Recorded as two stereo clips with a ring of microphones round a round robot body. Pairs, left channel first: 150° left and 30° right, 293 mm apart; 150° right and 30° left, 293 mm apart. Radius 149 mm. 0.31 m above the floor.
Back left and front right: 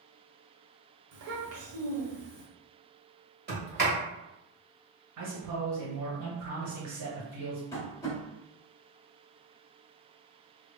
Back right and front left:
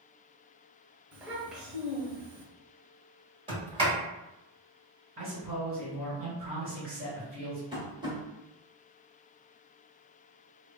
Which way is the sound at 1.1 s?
55° right.